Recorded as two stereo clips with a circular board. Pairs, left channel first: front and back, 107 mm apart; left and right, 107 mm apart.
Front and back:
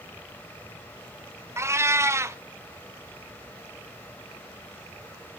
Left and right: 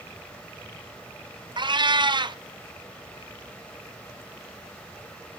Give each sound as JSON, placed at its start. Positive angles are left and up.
{"t": 1.6, "sound": "a cat meowing", "azimuth_deg": -120, "distance_m": 0.5}